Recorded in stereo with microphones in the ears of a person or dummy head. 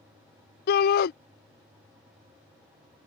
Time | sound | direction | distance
0.7 | a shout | 50° left (ahead or behind) | ?